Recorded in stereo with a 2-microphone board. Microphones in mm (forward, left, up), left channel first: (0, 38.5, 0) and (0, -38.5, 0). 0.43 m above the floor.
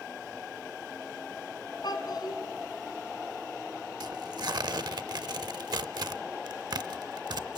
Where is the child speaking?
65° left (ahead or behind), 3 m.